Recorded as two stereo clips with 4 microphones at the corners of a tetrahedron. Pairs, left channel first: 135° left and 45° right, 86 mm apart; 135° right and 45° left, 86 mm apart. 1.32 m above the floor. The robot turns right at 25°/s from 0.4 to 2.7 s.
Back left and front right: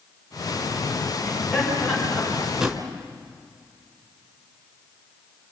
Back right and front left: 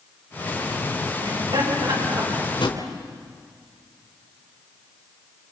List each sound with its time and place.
1.2 s laughter: 45° left, 6.5 m; by 2.5 s 75° left, 6.5 m
2.6 s a drawer: 125° right, 3 m